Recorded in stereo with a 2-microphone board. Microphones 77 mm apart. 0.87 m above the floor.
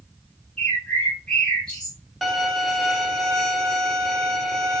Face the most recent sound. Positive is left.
turn(degrees=0)  # may be behind; listen again after turning